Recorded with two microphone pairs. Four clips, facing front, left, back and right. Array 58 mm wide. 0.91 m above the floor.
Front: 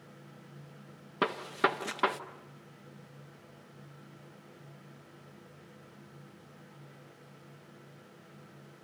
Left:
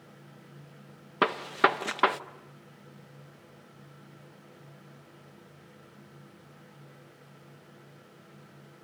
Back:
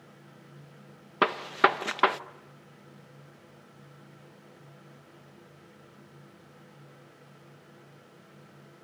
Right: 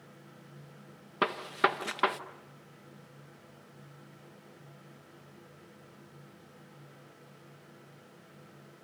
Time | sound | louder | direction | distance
1.2 | a gunshot | left 4 dB, back 6 dB | 160° left | 0.8 m